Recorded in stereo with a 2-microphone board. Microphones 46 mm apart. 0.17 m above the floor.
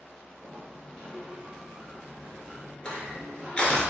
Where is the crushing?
20° left (ahead or behind), 0.9 m.